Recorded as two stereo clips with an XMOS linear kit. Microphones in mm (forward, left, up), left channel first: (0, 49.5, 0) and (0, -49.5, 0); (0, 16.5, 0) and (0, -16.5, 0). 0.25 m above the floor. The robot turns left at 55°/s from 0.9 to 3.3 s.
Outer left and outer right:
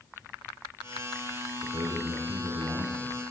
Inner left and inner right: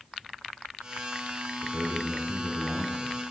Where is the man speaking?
50° right, 6 m; by 3.2 s 135° right, 6 m.